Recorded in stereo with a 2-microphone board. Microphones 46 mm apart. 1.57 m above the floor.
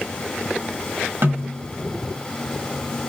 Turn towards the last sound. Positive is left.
turn(degrees=-60)  # may be behind; listen again after turning